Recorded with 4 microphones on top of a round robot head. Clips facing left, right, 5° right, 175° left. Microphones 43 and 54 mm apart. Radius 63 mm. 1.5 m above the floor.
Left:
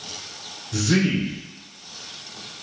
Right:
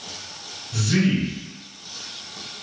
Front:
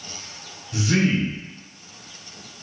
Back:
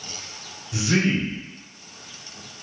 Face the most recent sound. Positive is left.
turn(degrees=95)